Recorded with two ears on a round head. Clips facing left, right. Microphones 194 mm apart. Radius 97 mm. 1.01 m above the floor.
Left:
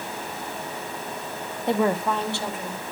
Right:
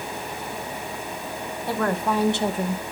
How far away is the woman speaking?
About 1.0 m.